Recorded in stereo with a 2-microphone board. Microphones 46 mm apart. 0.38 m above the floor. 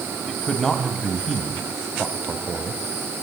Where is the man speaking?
5° left (ahead or behind), 2 m.